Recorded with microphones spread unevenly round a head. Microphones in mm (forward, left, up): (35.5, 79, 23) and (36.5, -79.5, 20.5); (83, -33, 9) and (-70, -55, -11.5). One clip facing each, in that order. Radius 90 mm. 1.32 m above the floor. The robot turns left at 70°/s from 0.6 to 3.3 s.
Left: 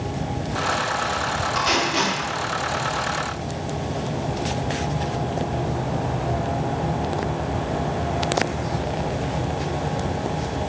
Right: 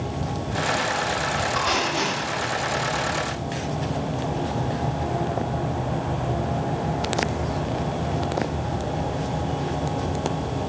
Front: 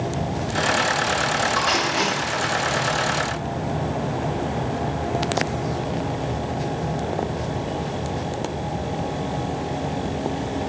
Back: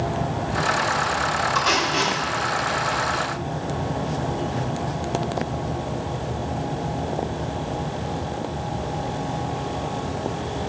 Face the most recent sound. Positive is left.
turn(degrees=30)